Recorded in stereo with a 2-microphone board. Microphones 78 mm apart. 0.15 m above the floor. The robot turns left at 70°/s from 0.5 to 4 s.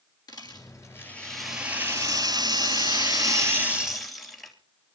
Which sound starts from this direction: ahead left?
A rattle, at 0.3 s.